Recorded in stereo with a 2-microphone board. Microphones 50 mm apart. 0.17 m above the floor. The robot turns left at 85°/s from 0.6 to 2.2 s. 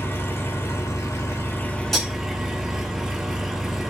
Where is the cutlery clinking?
5° left (ahead or behind), 1.1 m; by 2.1 s 10° right (ahead or behind), 1.1 m.